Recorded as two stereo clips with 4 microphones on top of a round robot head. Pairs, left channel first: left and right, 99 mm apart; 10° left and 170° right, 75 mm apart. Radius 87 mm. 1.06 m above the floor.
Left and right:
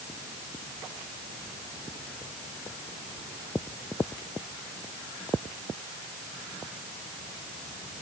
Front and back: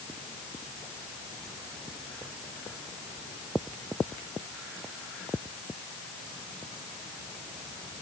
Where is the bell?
I don't hear a bell.